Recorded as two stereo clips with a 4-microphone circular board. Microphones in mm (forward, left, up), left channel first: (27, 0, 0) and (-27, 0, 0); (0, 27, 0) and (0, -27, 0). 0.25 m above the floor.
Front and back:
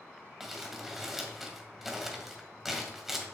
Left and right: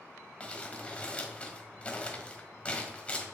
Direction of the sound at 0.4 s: 100° left.